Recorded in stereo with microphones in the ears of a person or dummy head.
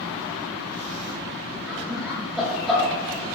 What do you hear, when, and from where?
1.7 s laughter: centre (ahead or behind), 2 m